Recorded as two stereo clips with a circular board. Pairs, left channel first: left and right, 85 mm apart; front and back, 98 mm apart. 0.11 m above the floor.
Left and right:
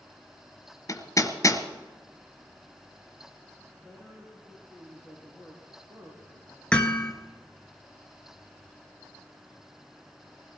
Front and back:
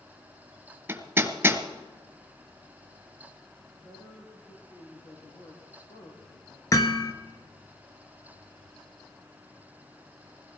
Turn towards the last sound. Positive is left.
turn(degrees=20)